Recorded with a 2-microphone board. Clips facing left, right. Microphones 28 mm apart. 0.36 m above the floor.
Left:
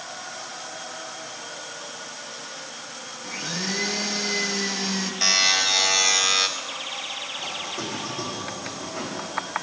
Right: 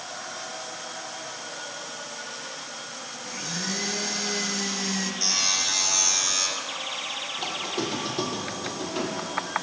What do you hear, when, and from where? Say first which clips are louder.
3.2 s a blender: left 3 dB; 20° left (ahead or behind), 0.6 m
5.2 s a buzzer: left 7 dB; 60° left (ahead or behind), 0.6 m
7.4 s a squeak: right 1 dB; 75° right (ahead or behind), 1.3 m